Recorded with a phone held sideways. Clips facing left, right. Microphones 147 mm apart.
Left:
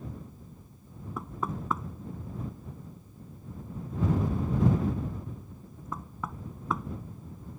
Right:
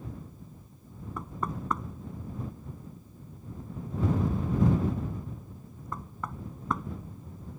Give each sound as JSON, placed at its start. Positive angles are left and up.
{"t": 1.2, "sound": "knocking", "side_deg": 0}